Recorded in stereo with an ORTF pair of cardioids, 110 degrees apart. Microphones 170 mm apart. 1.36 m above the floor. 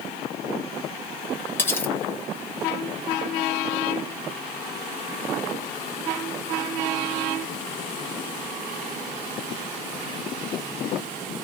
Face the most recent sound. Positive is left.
turn(degrees=15)